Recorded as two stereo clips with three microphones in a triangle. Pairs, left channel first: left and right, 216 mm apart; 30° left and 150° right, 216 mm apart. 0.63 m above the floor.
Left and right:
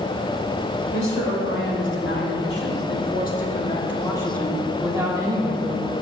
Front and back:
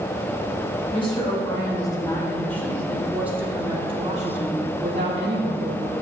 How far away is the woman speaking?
About 2.5 m.